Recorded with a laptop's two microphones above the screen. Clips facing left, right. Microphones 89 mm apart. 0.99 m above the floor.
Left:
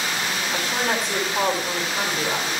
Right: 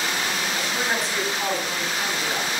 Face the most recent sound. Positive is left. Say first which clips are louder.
# left 4 dB
turn(degrees=65)  # may be behind; listen again after turning